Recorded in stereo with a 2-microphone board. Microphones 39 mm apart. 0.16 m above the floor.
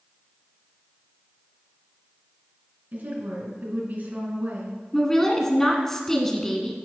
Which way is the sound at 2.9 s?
50° right (ahead or behind).